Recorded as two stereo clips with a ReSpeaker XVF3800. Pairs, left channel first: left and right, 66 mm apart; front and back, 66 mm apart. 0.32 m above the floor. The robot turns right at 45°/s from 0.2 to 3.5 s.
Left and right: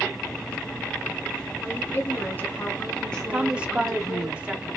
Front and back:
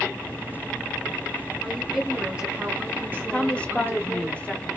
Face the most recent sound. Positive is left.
turn(degrees=-45)